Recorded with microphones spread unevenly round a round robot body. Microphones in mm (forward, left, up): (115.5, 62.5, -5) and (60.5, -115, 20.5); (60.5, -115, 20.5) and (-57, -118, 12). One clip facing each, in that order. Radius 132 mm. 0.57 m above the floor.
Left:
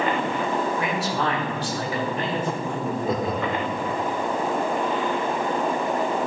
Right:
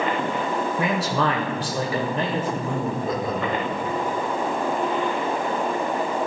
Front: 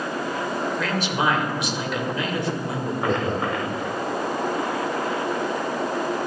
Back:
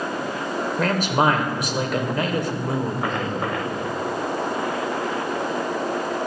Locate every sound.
0.8 s a man speaking: 140° right, 1.9 m
3.0 s laughter: straight ahead, 1.5 m